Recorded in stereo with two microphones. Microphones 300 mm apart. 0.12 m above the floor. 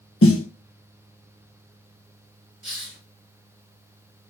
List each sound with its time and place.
0.2 s a snare drum: 45° left (ahead or behind), 1.0 m
2.6 s a hiss: 40° right (ahead or behind), 0.8 m